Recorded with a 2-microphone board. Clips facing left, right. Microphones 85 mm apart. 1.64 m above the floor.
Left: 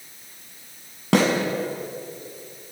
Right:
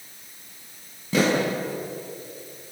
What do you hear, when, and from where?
1.1 s a snare drum: 75° left (ahead or behind), 7.5 m